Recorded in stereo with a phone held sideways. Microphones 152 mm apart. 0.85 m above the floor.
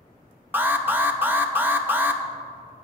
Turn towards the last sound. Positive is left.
turn(degrees=-10)  # may be behind; listen again after turning